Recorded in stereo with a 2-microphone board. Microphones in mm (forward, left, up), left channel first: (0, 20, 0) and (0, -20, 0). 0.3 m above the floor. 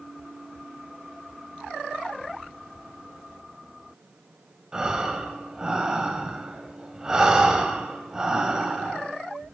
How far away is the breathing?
About 1.2 m.